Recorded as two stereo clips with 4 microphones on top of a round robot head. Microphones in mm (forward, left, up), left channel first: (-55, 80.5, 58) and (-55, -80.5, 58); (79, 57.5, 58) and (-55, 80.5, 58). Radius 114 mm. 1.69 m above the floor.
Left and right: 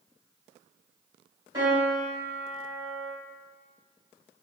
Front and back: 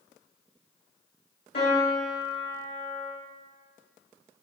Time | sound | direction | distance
1.5 | a piano | 20° right | 1.7 m